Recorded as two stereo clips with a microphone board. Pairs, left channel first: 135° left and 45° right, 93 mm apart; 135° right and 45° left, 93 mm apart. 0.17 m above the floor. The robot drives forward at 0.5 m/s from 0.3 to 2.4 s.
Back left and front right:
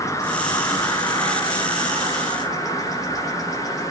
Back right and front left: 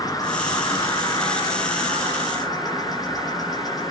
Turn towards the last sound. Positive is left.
turn(degrees=-175)